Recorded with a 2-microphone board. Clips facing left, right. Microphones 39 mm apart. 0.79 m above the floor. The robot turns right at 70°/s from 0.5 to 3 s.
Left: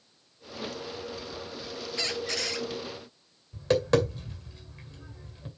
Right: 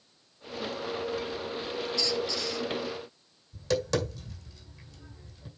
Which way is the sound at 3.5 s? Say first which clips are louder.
Left 5 dB; 30° left (ahead or behind).